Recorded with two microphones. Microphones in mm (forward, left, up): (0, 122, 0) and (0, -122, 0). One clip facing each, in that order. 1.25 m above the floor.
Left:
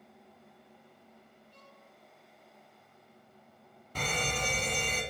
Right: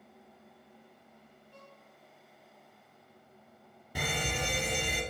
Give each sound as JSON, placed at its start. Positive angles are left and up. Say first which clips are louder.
{"t": 1.5, "sound": "a violin", "louder": "right 6 dB", "side_deg": -55, "distance_m": 3.5}
{"t": 4.0, "sound": "a fire alarm", "louder": "even", "side_deg": -10, "distance_m": 1.3}